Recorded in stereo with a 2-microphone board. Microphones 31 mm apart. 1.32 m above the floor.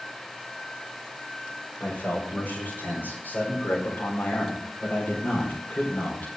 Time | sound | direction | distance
1.8 | a man speaking | 65° left (ahead or behind) | 6 m